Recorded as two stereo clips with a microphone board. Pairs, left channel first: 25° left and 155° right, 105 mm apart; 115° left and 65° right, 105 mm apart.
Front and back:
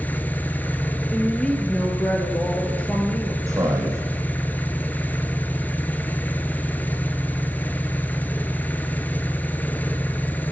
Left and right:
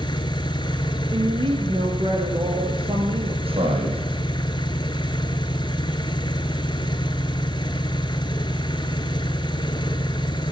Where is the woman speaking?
55° right, 2.5 m.